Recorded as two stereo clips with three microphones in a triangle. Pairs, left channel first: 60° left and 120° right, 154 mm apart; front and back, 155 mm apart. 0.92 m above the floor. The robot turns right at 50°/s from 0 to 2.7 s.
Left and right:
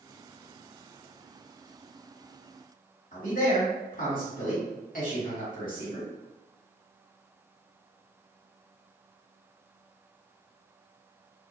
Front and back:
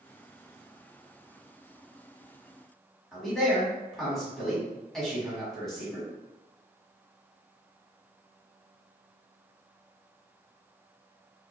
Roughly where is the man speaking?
Left.